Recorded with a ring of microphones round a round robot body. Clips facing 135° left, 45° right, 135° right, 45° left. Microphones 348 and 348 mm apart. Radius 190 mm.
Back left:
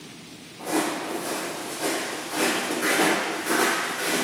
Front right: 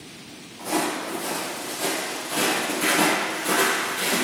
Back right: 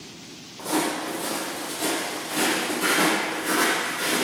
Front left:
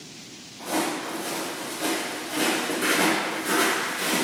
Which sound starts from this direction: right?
Footsteps, at 0.6 s.